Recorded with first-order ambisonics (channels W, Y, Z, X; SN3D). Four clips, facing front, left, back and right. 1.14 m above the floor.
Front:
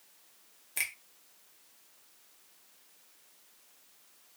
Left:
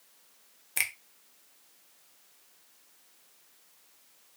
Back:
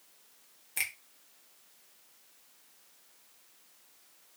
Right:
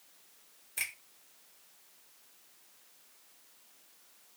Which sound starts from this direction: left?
A finger snap, at 0.8 s.